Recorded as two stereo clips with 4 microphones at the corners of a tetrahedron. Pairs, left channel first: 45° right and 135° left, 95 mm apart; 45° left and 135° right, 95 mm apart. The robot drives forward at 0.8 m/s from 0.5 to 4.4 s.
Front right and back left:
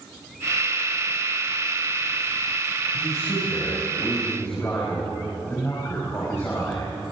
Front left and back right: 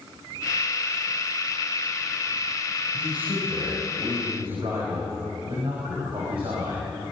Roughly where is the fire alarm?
No fire alarm in this recording.